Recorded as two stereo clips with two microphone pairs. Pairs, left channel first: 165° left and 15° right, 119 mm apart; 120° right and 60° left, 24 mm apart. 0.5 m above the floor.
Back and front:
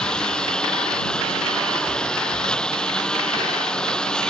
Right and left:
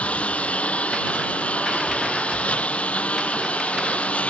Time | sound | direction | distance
0.0 | a lawn mower | 110° right | ?